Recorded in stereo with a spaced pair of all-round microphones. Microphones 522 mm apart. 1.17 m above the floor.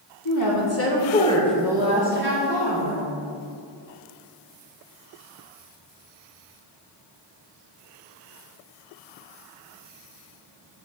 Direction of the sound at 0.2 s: 40° left (ahead or behind).